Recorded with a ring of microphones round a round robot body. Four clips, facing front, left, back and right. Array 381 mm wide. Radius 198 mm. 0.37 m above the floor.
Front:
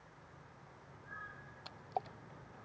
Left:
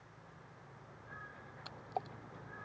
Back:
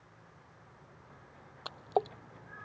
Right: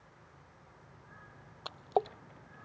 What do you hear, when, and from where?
1.6 s a splash: 135° right